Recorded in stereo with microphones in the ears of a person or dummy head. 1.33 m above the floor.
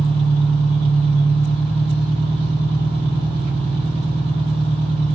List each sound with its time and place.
0.0 s an engine running: 30° right (ahead or behind), 1.3 m